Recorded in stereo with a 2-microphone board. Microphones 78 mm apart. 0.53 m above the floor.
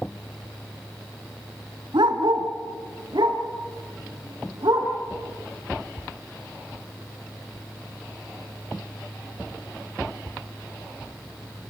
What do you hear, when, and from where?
1.9 s a dog barking: 90° right, 2.5 m; by 4.9 s 65° right (ahead or behind), 6.5 m